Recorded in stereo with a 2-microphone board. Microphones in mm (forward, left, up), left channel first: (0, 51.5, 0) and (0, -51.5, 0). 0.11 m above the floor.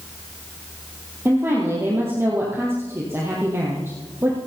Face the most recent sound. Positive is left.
turn(degrees=-25)  # may be behind; listen again after turning